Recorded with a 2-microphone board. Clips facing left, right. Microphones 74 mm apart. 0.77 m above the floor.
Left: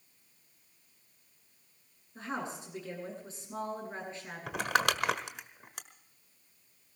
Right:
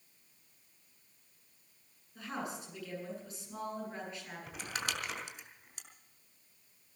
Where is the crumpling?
85° left, 1.4 m.